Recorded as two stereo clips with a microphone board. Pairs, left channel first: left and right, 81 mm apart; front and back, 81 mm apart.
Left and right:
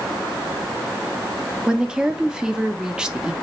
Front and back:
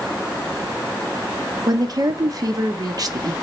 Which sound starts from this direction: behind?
A woman speaking, at 1.7 s.